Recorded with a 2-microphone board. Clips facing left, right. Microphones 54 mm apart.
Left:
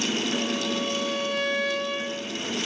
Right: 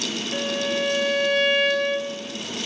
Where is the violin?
55° right (ahead or behind), 6 m.